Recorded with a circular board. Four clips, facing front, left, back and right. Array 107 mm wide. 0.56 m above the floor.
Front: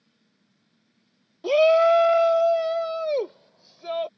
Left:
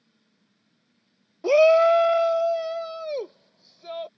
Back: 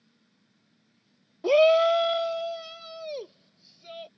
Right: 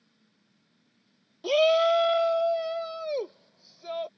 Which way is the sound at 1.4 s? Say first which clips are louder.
Left 6 dB, front 2 dB; 110° left.